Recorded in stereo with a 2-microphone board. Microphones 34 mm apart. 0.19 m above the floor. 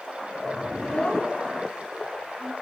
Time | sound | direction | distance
0.7 | a child speaking | 40° left (ahead or behind) | 3.5 m